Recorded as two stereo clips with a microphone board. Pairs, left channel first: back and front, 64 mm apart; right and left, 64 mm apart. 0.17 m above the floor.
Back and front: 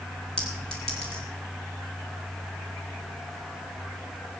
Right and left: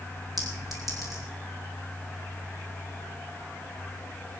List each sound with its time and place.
0.4 s a clink: 100° left, 3 m